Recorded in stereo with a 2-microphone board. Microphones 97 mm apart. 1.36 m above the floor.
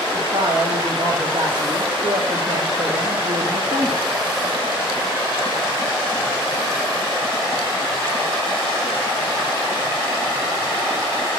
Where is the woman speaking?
55° right (ahead or behind), 0.9 m.